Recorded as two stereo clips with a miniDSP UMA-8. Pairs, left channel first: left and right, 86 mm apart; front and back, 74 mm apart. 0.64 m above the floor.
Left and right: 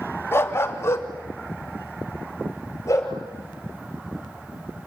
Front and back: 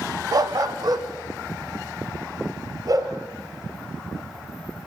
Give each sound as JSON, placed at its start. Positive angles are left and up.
{"t": 0.3, "sound": "a dog barking", "azimuth_deg": 150, "distance_m": 1.1}